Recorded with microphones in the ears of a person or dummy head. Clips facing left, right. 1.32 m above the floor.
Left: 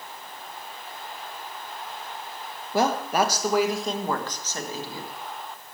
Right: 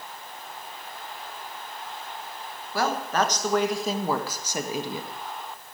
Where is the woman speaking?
20° left (ahead or behind), 1.3 m; by 5.1 s 20° right (ahead or behind), 1.8 m.